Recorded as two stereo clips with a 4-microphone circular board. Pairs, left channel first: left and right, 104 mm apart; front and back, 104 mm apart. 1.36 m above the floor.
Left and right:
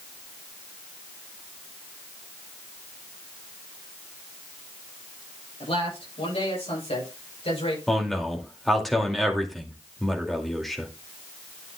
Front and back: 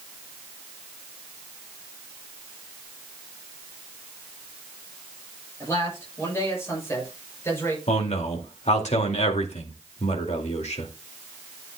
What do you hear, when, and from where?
5.6 s a man speaking: 65° left, 8 m
7.9 s a man speaking: straight ahead, 2.5 m